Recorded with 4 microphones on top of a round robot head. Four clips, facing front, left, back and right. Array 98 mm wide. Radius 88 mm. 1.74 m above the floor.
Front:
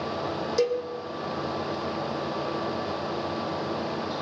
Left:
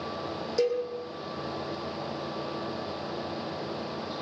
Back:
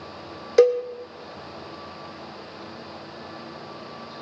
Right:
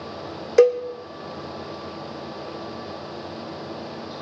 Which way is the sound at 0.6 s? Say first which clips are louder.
Right 11 dB, back 9 dB; 130° right.